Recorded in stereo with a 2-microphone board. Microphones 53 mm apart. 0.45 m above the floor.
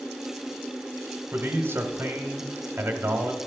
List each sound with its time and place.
1.3 s a man speaking: 45° right (ahead or behind), 1.2 m